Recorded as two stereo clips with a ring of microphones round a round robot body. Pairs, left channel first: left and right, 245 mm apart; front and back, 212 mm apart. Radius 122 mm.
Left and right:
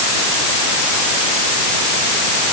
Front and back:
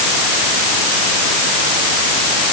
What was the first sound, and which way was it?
Only background noise.